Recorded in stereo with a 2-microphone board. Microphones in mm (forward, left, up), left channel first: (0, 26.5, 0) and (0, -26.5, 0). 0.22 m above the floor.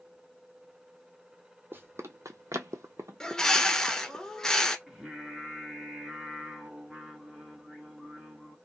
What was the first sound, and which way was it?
Running footsteps, 45° right (ahead or behind).